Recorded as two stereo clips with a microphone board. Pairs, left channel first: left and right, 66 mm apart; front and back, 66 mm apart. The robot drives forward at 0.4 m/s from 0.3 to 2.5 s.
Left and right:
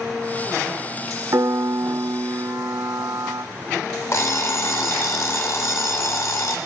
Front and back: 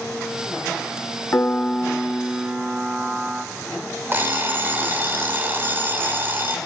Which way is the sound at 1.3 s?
55° right.